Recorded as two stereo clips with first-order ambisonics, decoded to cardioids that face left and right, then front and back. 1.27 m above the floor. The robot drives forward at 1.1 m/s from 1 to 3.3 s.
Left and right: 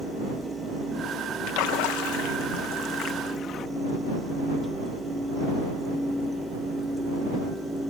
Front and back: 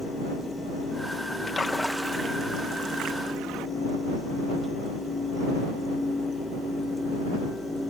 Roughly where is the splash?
Left.